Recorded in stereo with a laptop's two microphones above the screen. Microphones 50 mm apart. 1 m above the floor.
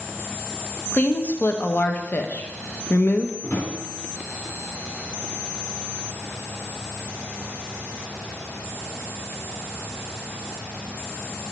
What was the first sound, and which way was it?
A woman speaking, 40° left (ahead or behind).